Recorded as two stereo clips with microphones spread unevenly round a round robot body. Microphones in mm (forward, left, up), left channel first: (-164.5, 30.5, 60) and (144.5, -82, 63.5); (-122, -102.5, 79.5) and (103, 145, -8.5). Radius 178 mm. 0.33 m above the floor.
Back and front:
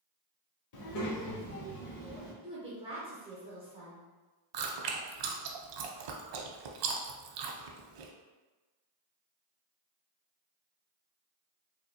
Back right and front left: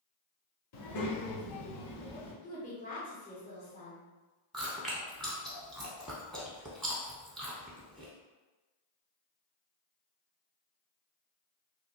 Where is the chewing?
45° right, 0.6 m.